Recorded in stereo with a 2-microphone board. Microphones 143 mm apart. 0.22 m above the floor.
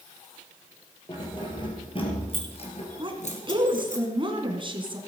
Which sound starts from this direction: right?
A woman speaking, at 3.0 s.